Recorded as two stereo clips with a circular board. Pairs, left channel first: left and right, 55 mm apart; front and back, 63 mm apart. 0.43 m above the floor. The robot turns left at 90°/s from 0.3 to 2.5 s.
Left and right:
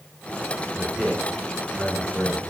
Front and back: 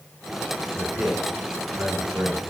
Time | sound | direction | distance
0.8 | a man speaking | 110° right | 1.0 m